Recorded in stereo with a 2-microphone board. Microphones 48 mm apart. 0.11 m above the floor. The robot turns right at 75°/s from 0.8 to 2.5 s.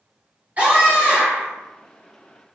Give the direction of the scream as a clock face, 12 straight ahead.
5 o'clock.